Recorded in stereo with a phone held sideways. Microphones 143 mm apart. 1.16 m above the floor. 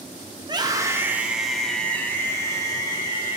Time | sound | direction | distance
0.4 | a scream | 35° right (ahead or behind) | 1.2 m